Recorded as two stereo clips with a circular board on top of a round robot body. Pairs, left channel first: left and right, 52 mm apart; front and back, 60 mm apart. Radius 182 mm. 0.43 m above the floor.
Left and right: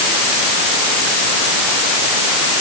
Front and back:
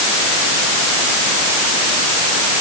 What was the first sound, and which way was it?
Only background noise.